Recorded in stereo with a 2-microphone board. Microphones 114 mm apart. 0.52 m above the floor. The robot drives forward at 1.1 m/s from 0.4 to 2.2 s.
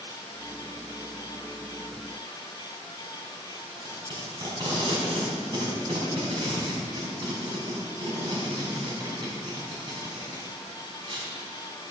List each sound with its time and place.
3.7 s tape being pulled: 40° right (ahead or behind), 5 m